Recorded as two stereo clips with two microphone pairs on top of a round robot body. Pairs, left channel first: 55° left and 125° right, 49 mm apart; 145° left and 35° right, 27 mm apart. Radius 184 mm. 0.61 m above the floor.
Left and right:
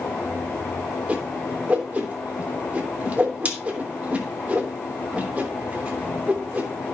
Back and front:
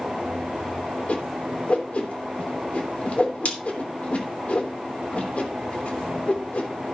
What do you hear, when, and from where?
1.1 s a whoosh: 175° left, 3.5 m